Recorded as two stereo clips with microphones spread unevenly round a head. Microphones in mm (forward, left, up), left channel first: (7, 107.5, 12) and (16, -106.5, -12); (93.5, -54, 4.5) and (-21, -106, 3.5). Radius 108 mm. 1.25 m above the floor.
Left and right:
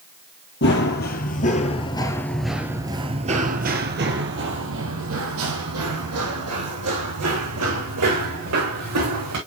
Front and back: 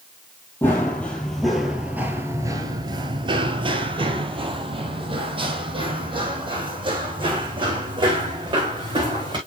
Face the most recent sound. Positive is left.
turn(degrees=-105)